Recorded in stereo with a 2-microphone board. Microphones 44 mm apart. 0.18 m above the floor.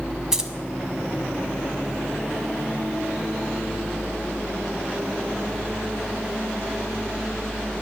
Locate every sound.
0.3 s keys jangling: 15° right (ahead or behind), 0.7 m